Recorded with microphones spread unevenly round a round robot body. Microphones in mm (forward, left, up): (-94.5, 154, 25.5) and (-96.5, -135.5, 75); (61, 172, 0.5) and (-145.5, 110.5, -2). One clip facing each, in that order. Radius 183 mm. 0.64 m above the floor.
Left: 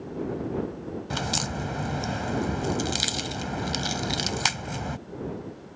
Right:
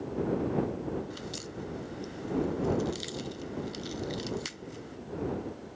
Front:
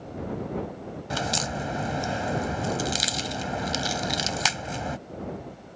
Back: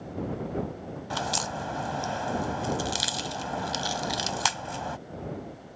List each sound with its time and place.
1.1 s a crack: 85° left